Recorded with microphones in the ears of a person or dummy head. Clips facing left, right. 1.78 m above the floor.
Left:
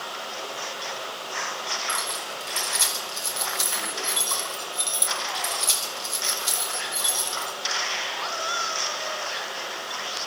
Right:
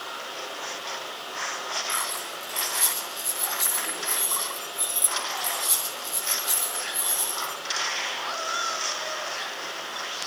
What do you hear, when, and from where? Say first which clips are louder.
0.0 s running water: left 2 dB; 65° left (ahead or behind), 9 m
1.9 s keys jangling: left 2 dB; 40° left (ahead or behind), 6.5 m